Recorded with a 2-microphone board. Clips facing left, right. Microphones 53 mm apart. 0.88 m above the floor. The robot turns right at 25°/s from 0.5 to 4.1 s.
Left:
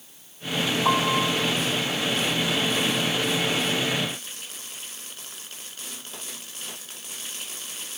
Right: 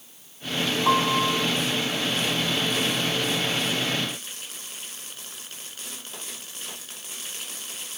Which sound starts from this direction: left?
A piano, at 0.8 s.